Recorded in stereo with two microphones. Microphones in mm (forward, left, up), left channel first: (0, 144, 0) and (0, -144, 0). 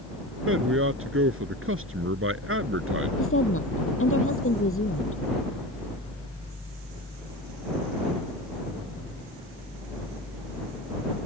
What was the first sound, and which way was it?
A man speaking, 55° right (ahead or behind).